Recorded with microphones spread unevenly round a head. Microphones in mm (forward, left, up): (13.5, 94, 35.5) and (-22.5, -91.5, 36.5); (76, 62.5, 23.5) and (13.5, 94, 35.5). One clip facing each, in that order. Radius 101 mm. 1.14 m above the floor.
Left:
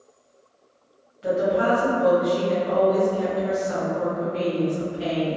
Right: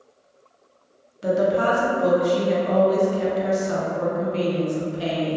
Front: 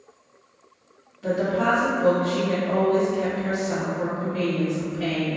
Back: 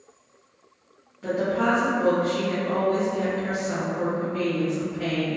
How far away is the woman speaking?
About 0.9 m.